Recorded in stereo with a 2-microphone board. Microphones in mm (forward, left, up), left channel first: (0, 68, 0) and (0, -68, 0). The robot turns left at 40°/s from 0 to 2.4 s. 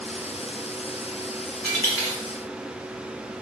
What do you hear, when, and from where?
1.6 s a dropped coin: 15° right (ahead or behind), 1.2 m; by 2.2 s 35° right (ahead or behind), 1.2 m